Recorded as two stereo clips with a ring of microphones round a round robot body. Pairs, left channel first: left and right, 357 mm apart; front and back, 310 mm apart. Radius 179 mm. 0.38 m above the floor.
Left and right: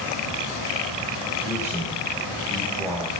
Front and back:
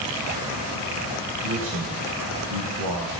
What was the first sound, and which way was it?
A man speaking, 170° right.